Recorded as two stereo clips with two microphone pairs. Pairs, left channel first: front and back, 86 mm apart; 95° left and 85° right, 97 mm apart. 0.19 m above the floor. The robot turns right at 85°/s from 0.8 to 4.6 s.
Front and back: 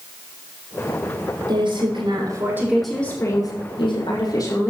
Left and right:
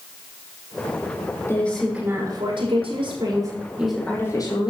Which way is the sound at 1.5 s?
155° left.